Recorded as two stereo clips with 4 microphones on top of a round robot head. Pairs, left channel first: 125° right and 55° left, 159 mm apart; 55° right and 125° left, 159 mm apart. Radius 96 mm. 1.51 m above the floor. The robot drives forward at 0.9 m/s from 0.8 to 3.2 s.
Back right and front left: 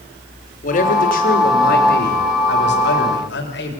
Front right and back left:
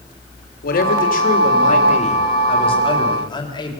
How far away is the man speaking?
About 3.5 m.